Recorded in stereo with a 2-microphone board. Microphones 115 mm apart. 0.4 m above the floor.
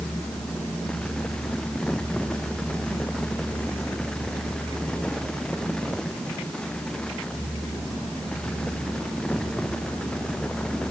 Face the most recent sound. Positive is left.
No sound to turn to.